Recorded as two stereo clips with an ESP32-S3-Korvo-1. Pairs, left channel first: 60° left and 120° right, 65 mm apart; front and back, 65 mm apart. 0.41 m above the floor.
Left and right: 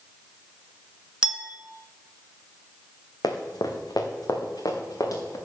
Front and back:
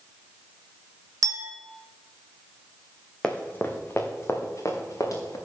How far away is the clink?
About 1.0 m.